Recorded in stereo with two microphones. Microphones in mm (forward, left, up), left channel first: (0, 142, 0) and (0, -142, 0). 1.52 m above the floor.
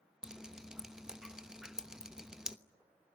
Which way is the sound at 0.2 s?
Centre (ahead or behind).